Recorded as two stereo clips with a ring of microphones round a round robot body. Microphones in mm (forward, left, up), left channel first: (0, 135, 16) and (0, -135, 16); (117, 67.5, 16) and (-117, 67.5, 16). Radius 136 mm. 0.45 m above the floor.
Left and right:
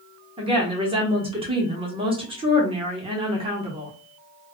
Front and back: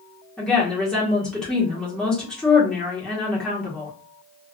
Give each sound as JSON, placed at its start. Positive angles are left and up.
{"t": 0.4, "sound": "a woman speaking", "azimuth_deg": -80, "distance_m": 0.9}